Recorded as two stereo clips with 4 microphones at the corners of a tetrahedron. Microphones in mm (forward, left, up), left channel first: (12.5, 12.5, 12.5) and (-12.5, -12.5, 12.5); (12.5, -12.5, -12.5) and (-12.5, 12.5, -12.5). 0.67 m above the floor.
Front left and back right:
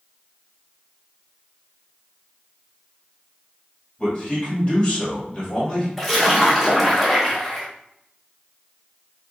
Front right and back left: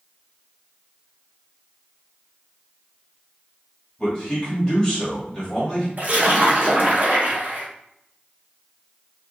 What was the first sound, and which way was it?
A man speaking, 15° left.